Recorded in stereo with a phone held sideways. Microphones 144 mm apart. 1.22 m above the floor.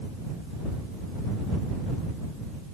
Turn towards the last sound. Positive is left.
No sound to turn to.